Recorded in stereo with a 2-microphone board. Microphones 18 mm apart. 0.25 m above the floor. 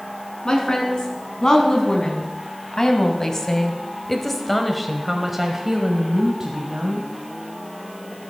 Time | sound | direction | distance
0.5 | a woman speaking | 45° left (ahead or behind) | 2.5 m